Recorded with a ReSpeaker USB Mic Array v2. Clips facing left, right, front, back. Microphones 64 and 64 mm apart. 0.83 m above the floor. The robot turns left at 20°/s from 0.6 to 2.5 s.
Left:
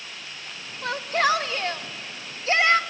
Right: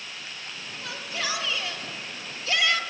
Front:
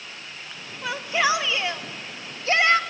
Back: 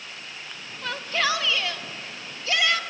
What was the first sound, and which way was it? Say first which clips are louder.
A shout: left 10 dB, front 3 dB; 80° left.